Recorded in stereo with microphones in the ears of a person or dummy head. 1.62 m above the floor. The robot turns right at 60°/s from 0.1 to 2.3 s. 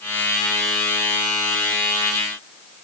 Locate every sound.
Only background noise.